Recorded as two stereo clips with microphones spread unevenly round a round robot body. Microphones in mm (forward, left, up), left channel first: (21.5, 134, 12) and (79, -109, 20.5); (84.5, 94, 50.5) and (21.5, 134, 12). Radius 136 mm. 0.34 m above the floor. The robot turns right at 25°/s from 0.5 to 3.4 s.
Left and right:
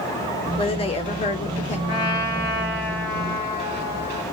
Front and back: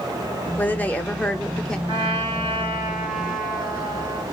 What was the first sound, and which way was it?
A woman speaking, 70° left.